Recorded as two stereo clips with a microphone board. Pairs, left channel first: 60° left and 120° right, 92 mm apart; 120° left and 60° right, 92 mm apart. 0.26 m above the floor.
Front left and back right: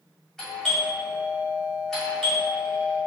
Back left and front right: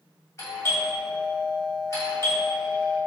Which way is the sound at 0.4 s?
145° left.